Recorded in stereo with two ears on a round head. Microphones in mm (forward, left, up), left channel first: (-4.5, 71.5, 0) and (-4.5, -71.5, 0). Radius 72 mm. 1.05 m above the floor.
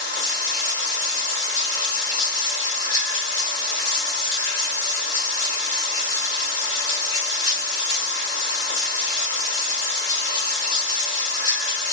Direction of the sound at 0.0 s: 20° left (ahead or behind).